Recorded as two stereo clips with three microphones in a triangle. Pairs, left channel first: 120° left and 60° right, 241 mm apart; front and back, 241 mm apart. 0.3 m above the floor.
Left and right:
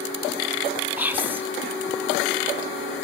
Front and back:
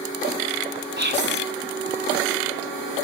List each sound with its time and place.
1.0 s whispering: 140° right, 3 m